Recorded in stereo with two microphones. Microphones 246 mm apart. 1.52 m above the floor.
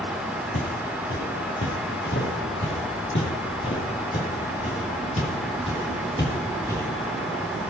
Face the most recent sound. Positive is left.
turn(degrees=10)  # may be behind; listen again after turning